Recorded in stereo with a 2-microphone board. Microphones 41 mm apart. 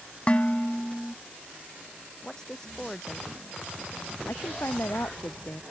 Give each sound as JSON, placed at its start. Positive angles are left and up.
{"t": 0.3, "sound": "dishes clattering", "side_deg": 30}
{"t": 2.2, "sound": "a woman speaking", "side_deg": 15}
{"t": 4.3, "sound": "a woman speaking", "side_deg": 65}